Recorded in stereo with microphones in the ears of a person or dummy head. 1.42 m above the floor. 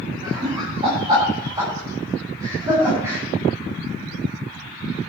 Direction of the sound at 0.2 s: 35° right (ahead or behind).